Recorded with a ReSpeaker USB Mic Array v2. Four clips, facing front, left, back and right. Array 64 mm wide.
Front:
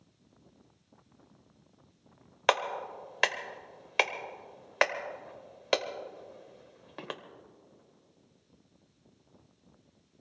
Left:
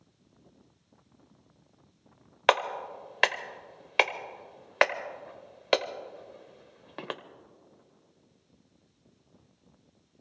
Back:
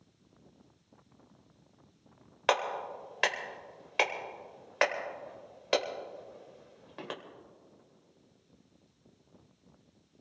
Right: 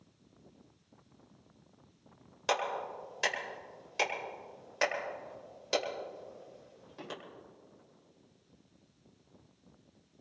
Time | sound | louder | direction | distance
2.5 | a clap | left 7 dB, front 1 dB | 75° left | 1.1 m